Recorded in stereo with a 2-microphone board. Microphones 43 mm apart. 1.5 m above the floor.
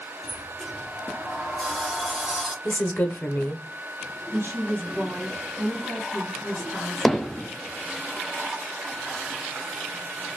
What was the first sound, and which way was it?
A sliding door, 5° right (ahead or behind).